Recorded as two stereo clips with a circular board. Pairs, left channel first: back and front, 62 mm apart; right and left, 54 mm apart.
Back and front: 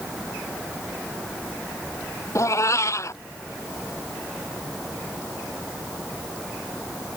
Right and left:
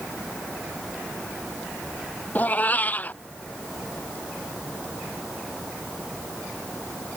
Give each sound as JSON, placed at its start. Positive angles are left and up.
{"t": 2.4, "sound": "a cat meowing", "azimuth_deg": -145}